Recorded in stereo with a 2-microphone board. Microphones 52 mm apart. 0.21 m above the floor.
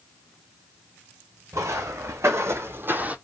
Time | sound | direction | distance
1.5 | footsteps | 80° right | 1.2 m